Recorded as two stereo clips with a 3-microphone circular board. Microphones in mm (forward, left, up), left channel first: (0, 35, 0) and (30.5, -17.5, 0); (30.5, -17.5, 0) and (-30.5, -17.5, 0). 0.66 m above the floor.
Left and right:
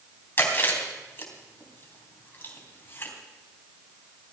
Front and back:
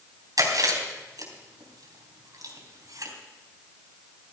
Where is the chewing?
170° left, 3.5 m.